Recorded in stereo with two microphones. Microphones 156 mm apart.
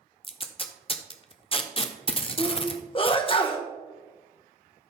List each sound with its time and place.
0.2 s tape being pulled: 35° left (ahead or behind), 0.8 m
2.4 s a sneeze: 35° left (ahead or behind), 1.3 m